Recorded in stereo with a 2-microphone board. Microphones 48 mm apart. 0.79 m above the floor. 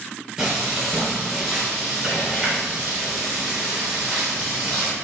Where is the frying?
10° right (ahead or behind), 2.5 m.